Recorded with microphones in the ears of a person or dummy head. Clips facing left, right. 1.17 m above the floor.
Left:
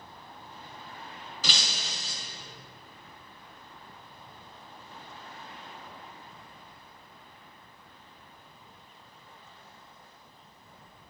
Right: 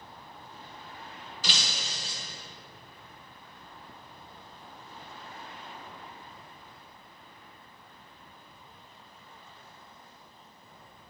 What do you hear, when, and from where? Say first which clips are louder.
1.4 s breaking glass: even; 70° left (ahead or behind), 2 m